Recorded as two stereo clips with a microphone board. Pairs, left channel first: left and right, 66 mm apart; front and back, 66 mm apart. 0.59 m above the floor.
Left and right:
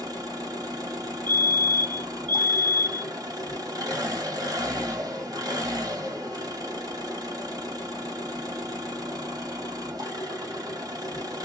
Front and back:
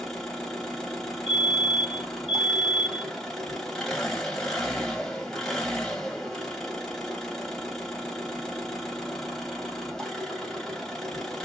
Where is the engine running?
85° right, 2 m.